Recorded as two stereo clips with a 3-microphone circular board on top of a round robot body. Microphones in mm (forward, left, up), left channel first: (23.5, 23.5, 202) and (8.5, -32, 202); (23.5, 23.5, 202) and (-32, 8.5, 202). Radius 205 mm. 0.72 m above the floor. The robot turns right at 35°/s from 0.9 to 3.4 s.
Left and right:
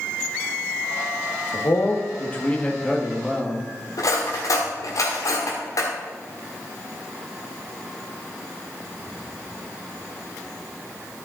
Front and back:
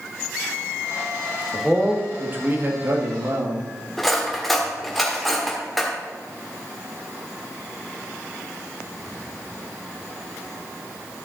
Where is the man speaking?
110° left, 1.5 m; by 3.7 s 175° left, 1.5 m.